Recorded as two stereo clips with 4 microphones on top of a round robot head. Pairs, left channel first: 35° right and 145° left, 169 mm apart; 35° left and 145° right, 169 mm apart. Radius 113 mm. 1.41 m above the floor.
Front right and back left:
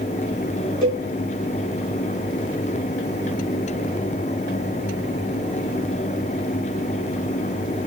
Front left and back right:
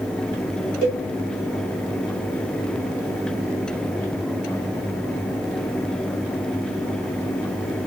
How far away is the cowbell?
About 2.0 m.